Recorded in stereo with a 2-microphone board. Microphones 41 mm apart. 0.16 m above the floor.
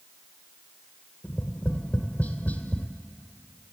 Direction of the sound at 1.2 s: 45° left (ahead or behind).